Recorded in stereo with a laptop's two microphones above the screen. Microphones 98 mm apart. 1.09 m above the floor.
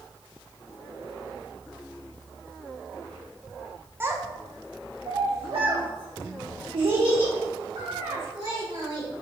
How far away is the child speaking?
About 0.8 m.